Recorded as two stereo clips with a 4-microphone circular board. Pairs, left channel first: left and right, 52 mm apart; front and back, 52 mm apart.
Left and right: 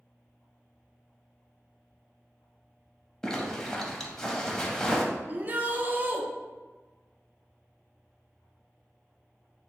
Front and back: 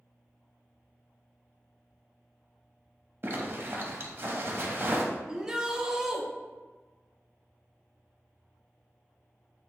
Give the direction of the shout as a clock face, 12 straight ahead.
4 o'clock.